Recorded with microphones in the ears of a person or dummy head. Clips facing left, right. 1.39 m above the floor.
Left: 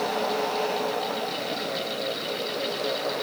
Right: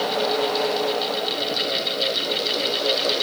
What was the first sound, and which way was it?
Only background noise.